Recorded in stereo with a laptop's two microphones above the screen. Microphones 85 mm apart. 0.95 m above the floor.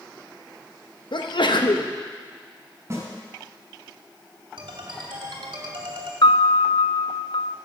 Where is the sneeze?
65° left (ahead or behind), 0.9 m.